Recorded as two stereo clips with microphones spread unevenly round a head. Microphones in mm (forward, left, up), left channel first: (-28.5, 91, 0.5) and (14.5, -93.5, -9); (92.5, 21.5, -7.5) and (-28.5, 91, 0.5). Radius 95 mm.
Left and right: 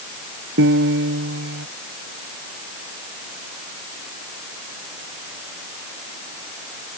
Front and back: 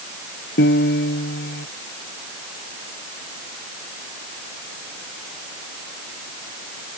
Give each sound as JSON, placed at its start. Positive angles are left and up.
{"t": 0.6, "sound": "a piano", "azimuth_deg": -40}